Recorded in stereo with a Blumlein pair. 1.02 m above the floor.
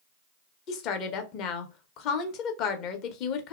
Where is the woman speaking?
35° left, 0.6 m.